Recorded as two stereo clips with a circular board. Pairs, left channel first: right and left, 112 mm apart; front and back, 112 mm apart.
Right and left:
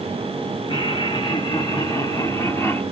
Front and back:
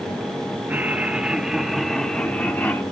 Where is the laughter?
110° right, 1.9 m; by 2.8 s 40° right, 1.4 m.